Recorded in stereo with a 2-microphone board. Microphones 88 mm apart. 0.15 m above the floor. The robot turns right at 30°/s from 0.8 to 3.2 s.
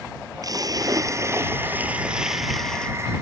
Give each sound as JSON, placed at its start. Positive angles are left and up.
{"t": 0.4, "sound": "a splash", "azimuth_deg": -50}